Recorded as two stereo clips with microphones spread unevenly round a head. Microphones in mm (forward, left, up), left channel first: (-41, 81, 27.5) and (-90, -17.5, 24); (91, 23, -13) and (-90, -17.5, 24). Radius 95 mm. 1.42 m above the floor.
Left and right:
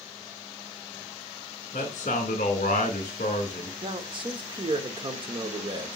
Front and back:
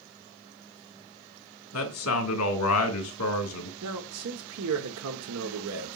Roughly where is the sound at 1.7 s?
Ahead.